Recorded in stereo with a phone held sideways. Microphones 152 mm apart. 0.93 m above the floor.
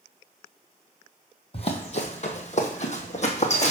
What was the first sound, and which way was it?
Running footsteps, 40° left (ahead or behind).